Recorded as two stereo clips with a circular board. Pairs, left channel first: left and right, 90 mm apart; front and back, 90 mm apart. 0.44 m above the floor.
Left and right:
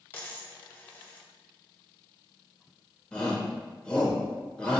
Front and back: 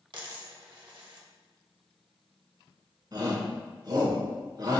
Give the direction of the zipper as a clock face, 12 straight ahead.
No zipper in this recording.